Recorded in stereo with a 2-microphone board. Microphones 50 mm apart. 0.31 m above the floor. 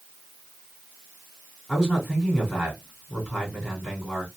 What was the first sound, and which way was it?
A man speaking, centre (ahead or behind).